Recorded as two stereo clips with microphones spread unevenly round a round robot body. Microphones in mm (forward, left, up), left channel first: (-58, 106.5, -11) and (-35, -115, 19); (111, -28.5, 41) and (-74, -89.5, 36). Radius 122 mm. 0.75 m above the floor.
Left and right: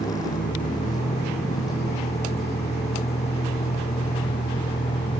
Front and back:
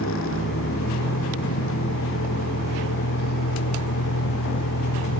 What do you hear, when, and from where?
0.0 s a vehicle: 20° left